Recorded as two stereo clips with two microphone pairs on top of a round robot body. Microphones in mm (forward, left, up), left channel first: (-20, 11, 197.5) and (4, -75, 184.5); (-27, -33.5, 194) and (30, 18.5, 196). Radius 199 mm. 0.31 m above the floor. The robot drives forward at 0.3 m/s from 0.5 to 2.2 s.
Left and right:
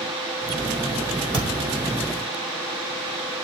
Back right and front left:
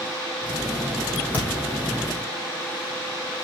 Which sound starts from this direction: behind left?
A thud, at 1.3 s.